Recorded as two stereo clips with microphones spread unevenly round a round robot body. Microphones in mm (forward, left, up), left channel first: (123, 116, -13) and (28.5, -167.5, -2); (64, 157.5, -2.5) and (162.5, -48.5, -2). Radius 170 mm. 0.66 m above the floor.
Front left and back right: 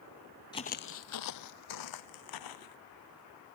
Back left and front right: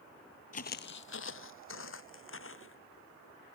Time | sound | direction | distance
0.5 | footsteps | 140° left | ?